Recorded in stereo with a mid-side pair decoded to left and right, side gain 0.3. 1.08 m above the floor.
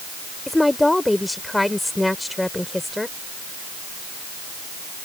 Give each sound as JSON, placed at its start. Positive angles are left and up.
{"t": 0.5, "sound": "a woman speaking", "azimuth_deg": 20}